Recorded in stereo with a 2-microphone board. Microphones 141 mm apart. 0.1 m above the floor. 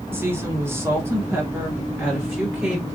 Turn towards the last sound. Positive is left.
turn(degrees=-10)  # may be behind; listen again after turning